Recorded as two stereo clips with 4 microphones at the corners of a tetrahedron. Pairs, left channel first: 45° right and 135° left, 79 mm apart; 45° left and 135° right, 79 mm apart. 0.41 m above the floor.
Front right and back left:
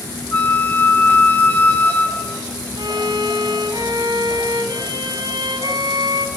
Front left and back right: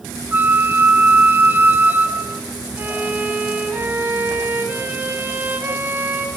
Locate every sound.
0.3 s a flute: 90° right, 0.7 m
2.8 s a violin: 160° left, 2.5 m